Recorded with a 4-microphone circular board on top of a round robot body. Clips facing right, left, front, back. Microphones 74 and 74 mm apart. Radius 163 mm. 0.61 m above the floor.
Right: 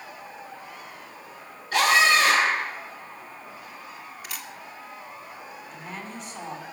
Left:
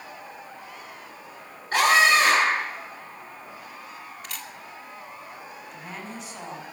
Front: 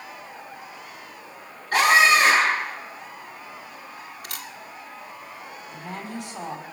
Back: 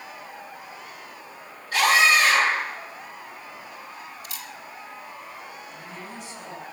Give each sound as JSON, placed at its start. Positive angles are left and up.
{"t": 1.7, "sound": "a scream", "azimuth_deg": 40, "distance_m": 9.5}
{"t": 4.2, "sound": "a camera shutter", "azimuth_deg": -5, "distance_m": 2.5}
{"t": 5.7, "sound": "a woman speaking", "azimuth_deg": 5, "distance_m": 5.5}